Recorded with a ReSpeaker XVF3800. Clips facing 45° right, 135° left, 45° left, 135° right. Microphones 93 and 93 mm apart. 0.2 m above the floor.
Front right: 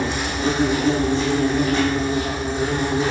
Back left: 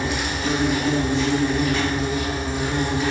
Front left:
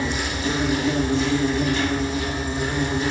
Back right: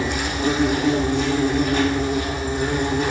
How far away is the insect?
About 5 m.